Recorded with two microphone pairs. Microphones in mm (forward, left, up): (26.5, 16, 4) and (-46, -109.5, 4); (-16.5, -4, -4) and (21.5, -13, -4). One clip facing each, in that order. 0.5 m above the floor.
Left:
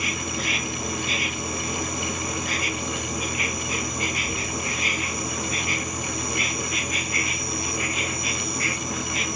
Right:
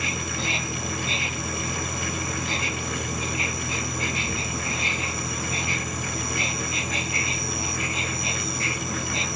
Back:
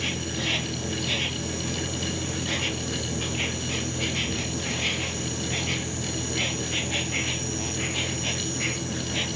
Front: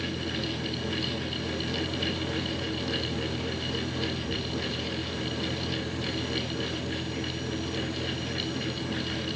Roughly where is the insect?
Behind.